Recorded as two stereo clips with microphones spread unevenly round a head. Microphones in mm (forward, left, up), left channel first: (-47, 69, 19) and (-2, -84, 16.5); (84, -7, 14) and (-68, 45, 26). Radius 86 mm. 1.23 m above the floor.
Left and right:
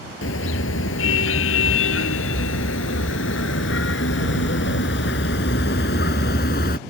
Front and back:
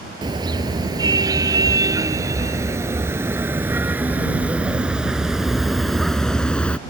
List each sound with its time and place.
0.2 s a car horn: 95° left; by 6.8 s 65° left